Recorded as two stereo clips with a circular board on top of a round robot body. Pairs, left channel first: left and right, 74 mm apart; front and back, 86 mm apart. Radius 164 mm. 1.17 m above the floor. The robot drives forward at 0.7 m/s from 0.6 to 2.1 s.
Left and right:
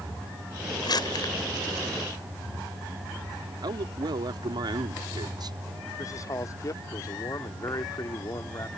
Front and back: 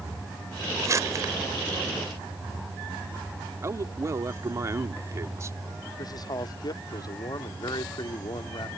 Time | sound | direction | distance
0.8 | crumpling | 125° left | ?
3.6 | a man speaking | 120° right | ?
6.0 | a man speaking | 45° left | ?